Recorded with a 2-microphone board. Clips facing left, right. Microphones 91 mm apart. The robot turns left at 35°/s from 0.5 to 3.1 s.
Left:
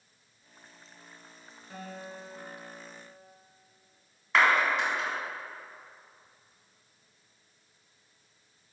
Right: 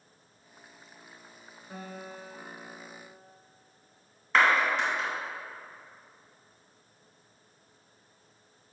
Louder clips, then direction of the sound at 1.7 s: Even; 40° right.